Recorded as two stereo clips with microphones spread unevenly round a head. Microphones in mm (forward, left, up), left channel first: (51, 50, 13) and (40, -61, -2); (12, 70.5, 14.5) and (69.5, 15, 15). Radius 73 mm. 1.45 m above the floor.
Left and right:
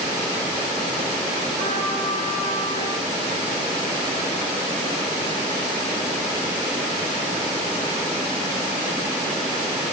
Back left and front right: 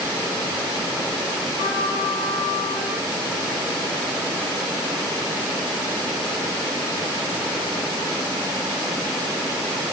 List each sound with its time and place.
1.6 s a trumpet: 145° left, 9.5 m